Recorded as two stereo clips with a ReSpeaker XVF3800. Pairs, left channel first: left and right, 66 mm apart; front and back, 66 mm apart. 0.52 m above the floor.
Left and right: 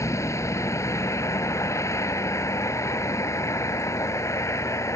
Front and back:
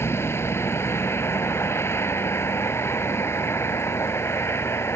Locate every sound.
0.0 s a vehicle: 50° left